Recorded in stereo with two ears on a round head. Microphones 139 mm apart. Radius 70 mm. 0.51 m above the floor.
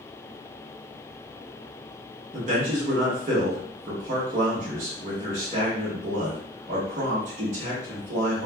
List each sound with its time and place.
2.3 s a man speaking: 45° right (ahead or behind), 1.2 m